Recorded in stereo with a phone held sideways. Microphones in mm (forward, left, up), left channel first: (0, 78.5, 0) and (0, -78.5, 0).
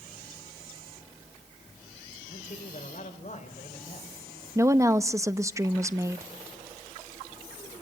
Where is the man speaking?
60° left (ahead or behind), 3 m; by 4.1 s 45° left (ahead or behind), 4.5 m.